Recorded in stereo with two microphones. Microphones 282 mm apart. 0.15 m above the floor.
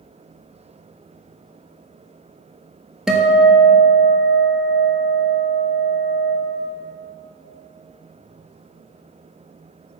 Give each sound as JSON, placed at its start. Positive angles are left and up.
{"t": 3.1, "sound": "a guitar", "side_deg": 0, "distance_m": 1.1}